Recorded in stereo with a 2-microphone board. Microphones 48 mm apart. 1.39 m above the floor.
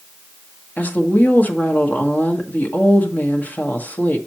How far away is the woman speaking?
About 1.5 m.